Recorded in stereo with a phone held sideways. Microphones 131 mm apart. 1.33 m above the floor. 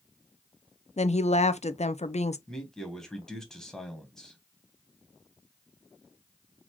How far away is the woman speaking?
About 0.6 m.